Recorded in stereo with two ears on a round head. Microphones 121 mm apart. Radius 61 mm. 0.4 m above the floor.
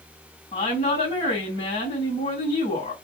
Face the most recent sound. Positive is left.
turn(degrees=45)  # may be behind; listen again after turning